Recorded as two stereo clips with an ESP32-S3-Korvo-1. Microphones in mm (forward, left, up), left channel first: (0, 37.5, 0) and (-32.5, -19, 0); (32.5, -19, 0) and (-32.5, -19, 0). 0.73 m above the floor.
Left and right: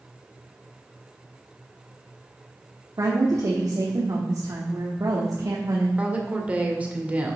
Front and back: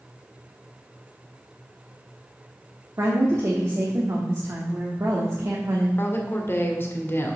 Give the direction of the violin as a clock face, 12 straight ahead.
No violin in this recording.